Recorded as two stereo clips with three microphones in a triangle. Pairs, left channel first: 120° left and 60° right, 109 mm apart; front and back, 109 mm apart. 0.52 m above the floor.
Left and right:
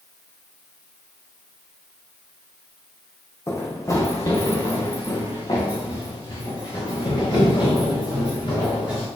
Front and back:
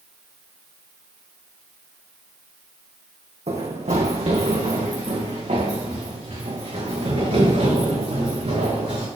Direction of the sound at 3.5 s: 175° right.